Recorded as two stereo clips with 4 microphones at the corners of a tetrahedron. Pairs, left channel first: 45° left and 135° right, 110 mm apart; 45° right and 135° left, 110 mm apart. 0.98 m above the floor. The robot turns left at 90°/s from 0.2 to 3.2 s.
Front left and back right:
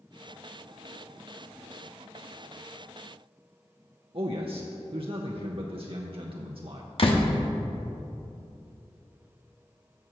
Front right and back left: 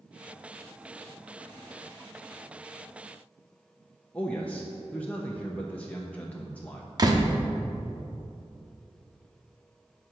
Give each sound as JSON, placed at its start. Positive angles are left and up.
{"t": 4.1, "sound": "a man speaking", "azimuth_deg": -120, "distance_m": 0.8}
{"t": 7.0, "sound": "a door slam", "azimuth_deg": 80, "distance_m": 1.1}